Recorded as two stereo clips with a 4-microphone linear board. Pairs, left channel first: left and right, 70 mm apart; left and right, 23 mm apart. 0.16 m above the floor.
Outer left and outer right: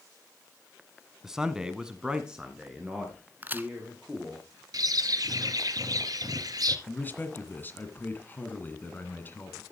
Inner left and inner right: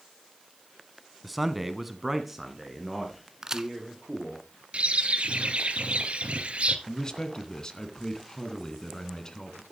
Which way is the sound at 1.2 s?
5° right (ahead or behind).